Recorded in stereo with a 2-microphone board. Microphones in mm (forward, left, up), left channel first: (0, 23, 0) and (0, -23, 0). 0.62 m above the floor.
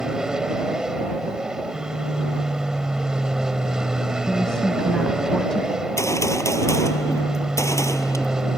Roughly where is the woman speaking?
Centre.